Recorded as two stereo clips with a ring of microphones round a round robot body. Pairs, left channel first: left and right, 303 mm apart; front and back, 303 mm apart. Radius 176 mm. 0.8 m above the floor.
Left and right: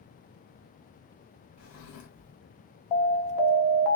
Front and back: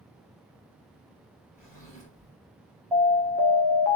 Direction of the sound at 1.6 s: 80° left.